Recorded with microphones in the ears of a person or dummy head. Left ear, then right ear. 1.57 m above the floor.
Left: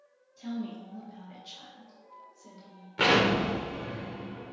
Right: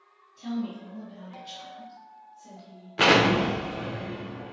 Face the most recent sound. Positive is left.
turn(degrees=-5)  # may be behind; listen again after turning